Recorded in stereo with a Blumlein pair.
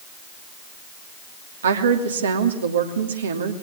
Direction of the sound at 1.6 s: 65° right.